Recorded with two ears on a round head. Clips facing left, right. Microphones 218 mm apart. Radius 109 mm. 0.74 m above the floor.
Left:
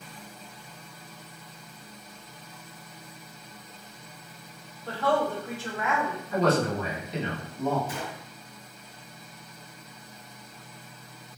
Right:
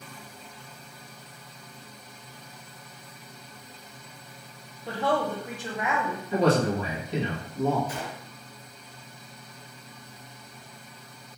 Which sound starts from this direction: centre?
A woman speaking, at 4.9 s.